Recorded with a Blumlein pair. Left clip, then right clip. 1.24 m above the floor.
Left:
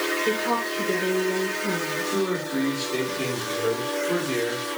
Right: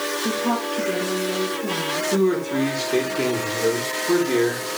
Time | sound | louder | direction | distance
0.2 | a woman speaking | even | 40° right | 3 m
2.1 | a man speaking | right 5 dB | 30° right | 4.5 m